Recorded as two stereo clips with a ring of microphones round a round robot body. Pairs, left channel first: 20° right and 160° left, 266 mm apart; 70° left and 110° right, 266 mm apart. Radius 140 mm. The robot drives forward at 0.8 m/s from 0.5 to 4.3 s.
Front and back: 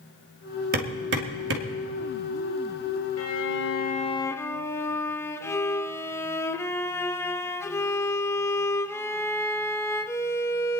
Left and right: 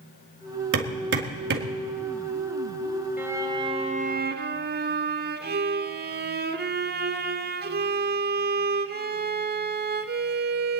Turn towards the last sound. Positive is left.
turn(degrees=-95)